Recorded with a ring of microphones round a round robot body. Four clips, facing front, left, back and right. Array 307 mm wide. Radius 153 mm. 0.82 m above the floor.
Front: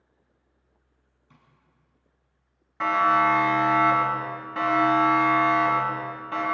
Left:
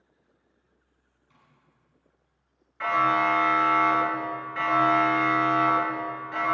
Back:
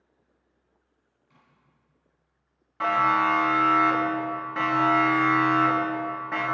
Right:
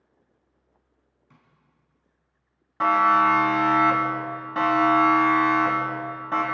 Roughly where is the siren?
Right.